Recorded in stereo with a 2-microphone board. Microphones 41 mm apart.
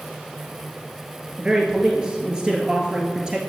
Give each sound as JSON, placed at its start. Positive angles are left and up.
{"t": 1.4, "sound": "a man speaking", "side_deg": -20, "distance_m": 2.5}